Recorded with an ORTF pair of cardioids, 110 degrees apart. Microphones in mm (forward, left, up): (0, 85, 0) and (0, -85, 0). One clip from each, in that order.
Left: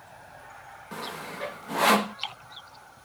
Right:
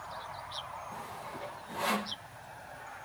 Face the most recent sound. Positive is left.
turn(degrees=60)